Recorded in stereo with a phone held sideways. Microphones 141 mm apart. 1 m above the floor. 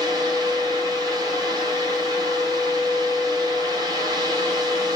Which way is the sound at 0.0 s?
25° right (ahead or behind).